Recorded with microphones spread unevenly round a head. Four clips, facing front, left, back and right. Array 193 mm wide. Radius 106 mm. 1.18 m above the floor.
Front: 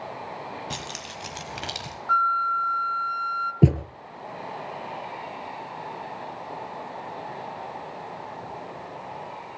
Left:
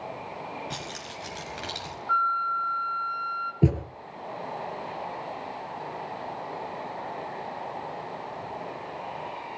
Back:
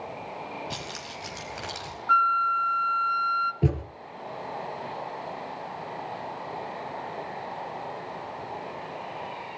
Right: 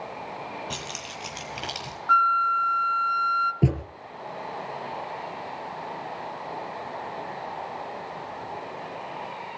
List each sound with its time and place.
0.7 s keys jangling: 20° right, 6 m; by 1.9 s 10° right, 4.5 m
2.1 s a flute: 100° right, 0.9 m
3.6 s a thud: straight ahead, 2.5 m